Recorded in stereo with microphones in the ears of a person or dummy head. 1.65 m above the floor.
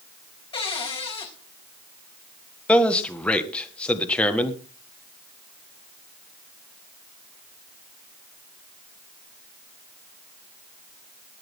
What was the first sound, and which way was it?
A cupboard door, 30° left (ahead or behind).